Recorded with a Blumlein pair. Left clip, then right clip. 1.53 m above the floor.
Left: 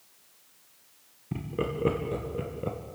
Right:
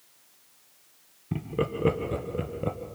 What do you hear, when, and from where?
1.3 s laughter: 10° right, 1.8 m